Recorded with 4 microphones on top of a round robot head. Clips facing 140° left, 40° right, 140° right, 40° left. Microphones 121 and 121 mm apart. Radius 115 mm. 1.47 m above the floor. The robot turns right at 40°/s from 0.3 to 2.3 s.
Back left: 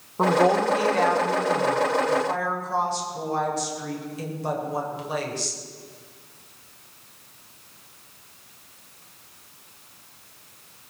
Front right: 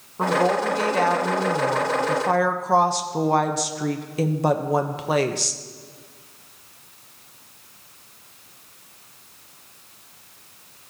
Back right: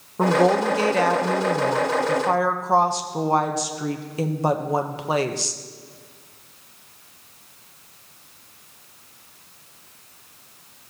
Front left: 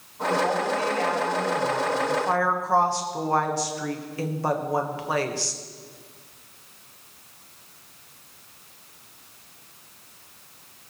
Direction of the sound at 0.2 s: 150° right.